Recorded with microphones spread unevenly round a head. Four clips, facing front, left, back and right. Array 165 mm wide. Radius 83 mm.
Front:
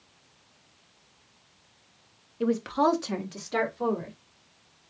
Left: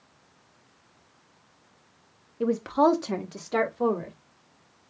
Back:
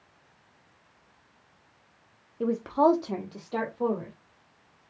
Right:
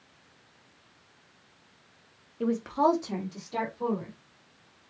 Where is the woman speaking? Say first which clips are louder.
Left 3 dB, back 1 dB; 125° left, 0.8 m; by 4.1 s 100° left, 2 m.